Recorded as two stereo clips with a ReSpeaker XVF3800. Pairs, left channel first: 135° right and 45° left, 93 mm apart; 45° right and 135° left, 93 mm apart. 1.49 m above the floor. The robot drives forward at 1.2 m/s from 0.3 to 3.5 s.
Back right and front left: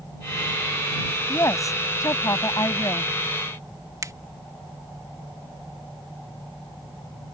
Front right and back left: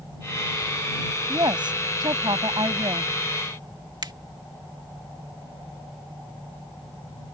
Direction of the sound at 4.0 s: 100° left.